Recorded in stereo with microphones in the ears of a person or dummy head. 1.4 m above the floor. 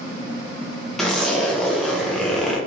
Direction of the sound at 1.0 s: Centre (ahead or behind).